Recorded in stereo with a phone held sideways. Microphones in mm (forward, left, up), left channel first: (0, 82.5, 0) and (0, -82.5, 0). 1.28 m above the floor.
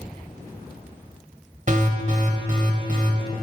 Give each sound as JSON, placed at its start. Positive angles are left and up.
{"t": 1.7, "sound": "an alarm", "side_deg": -50, "distance_m": 1.1}